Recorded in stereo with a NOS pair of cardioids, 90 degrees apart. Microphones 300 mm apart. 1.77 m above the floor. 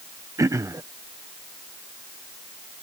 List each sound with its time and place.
0.4 s throat clearing: 10° right